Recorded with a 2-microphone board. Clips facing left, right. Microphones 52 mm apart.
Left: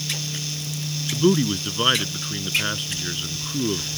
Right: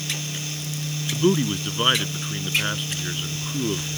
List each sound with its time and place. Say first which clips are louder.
1.1 s a man speaking: left 1 dB; centre (ahead or behind)